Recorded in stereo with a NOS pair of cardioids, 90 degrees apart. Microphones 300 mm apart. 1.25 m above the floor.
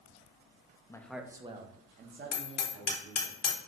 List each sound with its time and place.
0.9 s a man speaking: 10° left, 0.5 m; by 3.3 s 50° right, 1.4 m
2.3 s hammering: 60° left, 1.3 m